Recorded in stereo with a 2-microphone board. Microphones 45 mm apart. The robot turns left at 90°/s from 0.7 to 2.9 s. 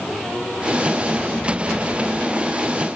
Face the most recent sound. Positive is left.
No sound to turn to.